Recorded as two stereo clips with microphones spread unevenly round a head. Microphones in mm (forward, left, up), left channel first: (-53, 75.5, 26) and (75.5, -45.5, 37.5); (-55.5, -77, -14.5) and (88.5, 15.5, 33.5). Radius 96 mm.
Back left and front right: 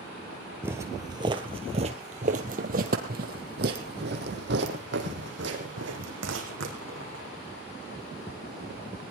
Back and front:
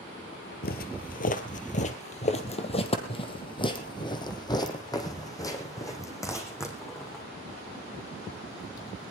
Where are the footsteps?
115° right, 1.7 m; by 7.2 s 70° right, 4.5 m.